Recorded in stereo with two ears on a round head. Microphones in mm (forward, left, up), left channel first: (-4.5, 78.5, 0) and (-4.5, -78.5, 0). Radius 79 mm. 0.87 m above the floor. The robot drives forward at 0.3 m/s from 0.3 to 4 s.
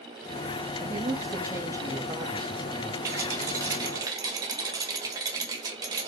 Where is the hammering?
I don't hear hammering.